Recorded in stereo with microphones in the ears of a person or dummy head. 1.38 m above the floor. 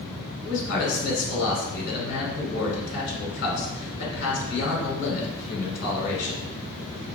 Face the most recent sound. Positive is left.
turn(degrees=65)  # may be behind; listen again after turning